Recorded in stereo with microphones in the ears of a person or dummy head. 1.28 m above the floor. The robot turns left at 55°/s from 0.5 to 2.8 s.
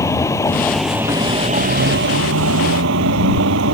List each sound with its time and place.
0.0 s a vehicle: 20° left; by 3.7 s 110° right